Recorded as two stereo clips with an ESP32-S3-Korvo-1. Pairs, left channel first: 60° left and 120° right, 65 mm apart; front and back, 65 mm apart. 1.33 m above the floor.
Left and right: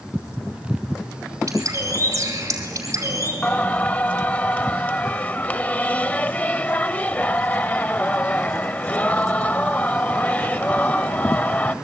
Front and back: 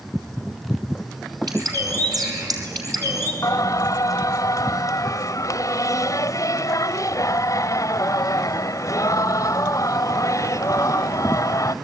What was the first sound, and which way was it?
A bird, 160° right.